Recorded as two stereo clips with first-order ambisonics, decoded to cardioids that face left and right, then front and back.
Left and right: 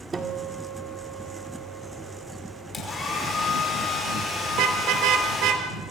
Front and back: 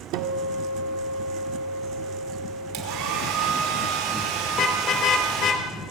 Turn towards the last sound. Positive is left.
turn(degrees=-60)